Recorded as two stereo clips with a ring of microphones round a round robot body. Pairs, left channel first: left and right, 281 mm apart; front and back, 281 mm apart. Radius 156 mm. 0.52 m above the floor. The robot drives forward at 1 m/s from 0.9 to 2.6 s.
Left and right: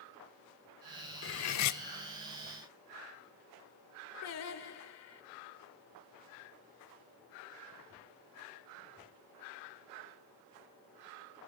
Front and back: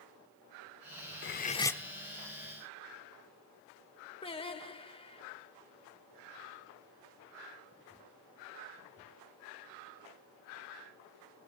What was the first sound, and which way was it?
Cutlery clinking, 50° left.